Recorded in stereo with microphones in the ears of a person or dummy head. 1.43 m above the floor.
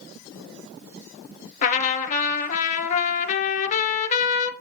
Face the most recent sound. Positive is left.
turn(degrees=45)  # may be behind; listen again after turning